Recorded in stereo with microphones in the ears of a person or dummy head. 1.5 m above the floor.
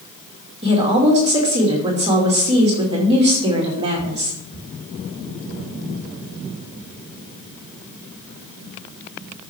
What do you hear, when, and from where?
0.6 s a woman speaking: 30° right (ahead or behind), 2 m